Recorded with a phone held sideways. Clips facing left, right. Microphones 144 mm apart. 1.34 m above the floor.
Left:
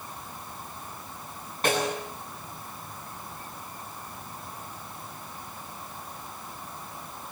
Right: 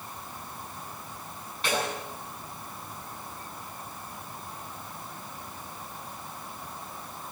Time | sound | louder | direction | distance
1.6 | a snare drum | left 4 dB | 45° left (ahead or behind) | 8 m